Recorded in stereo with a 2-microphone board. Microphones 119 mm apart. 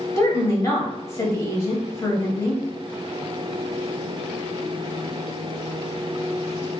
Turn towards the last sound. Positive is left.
turn(degrees=25)  # may be behind; listen again after turning